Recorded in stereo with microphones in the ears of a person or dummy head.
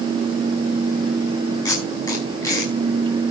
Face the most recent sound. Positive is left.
turn(degrees=25)  # may be behind; listen again after turning